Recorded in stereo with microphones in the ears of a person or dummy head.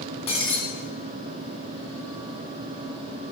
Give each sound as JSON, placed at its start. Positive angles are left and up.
{"t": 0.3, "sound": "breaking glass", "side_deg": 30, "distance_m": 1.9}